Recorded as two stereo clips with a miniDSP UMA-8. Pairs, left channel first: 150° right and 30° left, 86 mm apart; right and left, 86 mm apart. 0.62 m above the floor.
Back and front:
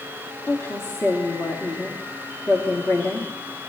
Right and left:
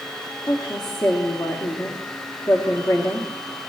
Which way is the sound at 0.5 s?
100° right.